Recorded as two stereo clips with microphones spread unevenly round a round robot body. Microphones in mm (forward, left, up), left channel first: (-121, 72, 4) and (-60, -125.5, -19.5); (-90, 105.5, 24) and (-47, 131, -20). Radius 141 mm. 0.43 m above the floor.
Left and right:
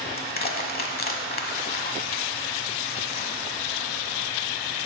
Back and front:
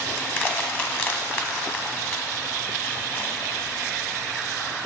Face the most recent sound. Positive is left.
turn(degrees=150)